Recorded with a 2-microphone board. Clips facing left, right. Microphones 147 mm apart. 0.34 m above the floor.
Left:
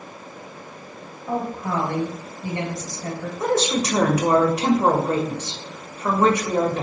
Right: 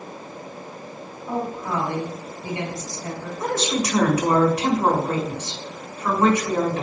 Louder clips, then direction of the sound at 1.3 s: Left 1 dB; 55° left (ahead or behind).